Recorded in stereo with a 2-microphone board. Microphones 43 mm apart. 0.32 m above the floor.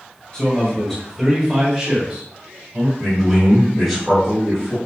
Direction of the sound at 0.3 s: 20° left (ahead or behind).